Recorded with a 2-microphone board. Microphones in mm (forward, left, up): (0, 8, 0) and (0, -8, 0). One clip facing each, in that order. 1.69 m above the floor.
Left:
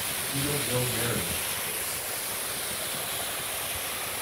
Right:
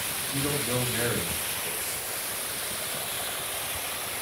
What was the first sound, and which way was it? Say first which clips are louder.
A man speaking: right 1 dB; 55° right (ahead or behind).